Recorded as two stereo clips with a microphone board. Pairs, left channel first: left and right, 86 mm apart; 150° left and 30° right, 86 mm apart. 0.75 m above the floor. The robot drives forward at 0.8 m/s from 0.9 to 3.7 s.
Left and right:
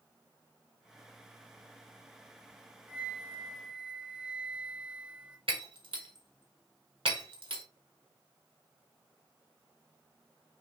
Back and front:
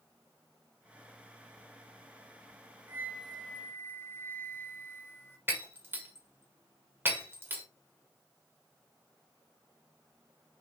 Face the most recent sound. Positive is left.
turn(degrees=-95)